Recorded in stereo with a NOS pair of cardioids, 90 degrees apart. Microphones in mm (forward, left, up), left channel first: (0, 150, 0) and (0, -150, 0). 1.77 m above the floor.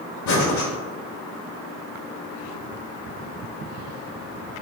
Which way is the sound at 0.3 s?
65° left.